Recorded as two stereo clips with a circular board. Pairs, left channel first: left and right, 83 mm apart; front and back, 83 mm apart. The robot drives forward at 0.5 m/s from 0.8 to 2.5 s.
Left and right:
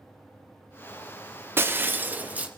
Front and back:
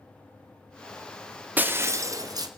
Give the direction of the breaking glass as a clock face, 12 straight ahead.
4 o'clock.